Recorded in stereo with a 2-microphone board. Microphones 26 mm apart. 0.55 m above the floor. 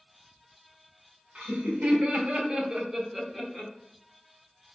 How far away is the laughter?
About 1.9 m.